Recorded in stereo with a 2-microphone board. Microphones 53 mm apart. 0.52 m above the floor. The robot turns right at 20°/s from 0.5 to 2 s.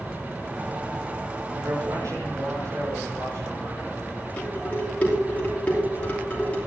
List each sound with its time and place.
1.5 s a man speaking: 65° right (ahead or behind), 6 m; by 4.0 s 75° right (ahead or behind), 6 m
4.4 s dishes clattering: 25° left (ahead or behind), 5 m